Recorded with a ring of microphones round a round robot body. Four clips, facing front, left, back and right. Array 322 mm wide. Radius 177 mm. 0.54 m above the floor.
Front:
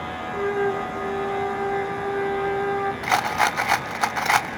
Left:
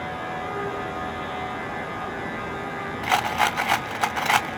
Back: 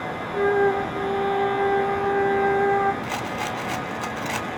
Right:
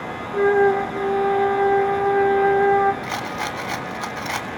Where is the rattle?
35° left, 0.6 m.